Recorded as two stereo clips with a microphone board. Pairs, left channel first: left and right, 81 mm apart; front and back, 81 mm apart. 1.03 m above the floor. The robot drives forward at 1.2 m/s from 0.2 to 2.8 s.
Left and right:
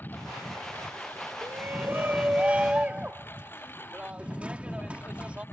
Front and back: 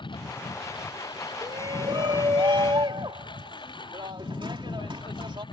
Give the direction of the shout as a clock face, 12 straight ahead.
5 o'clock.